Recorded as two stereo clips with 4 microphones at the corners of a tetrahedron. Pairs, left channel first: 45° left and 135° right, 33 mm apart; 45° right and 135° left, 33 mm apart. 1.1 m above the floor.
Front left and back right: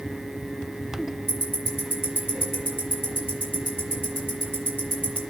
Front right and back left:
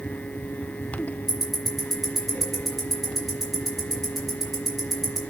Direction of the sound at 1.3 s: 50° left.